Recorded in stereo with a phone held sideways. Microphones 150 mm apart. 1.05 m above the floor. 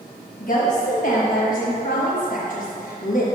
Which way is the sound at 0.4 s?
60° left (ahead or behind).